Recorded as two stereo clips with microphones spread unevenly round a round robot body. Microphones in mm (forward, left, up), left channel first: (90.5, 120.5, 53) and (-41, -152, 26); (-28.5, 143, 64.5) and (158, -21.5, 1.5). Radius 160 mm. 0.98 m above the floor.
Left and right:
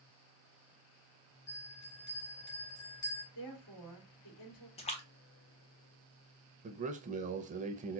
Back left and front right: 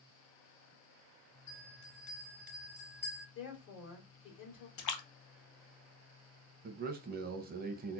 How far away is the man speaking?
About 0.7 m.